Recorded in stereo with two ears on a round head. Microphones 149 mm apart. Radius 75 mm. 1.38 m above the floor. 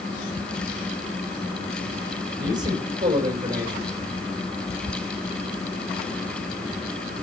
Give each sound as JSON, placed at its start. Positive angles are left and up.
{"t": 2.4, "sound": "a man speaking", "side_deg": -25, "distance_m": 5.0}